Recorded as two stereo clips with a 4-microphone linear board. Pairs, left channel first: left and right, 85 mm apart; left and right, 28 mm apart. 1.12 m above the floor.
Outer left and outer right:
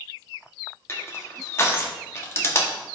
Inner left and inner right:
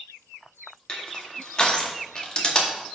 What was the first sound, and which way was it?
Crushing, 30° left (ahead or behind).